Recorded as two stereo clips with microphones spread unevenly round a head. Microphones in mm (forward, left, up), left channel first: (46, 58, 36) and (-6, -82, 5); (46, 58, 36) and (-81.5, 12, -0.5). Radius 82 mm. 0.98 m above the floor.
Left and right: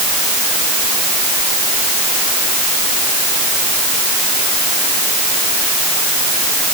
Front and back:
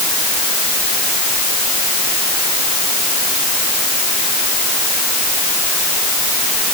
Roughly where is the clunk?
I don't hear a clunk.